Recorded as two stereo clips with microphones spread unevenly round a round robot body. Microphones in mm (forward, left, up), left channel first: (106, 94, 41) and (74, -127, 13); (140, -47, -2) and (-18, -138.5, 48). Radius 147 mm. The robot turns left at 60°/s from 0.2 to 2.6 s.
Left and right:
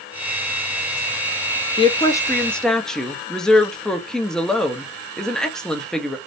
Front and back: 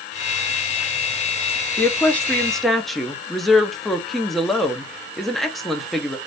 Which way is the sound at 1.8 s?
30° left.